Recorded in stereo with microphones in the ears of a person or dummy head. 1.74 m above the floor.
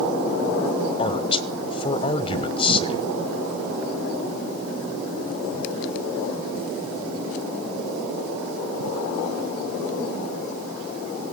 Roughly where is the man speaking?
Left.